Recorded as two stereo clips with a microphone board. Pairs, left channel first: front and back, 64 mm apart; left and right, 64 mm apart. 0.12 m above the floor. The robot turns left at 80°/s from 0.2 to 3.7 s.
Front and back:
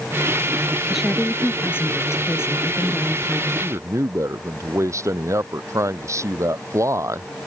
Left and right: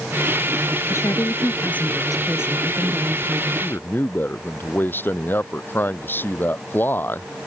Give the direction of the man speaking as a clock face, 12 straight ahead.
7 o'clock.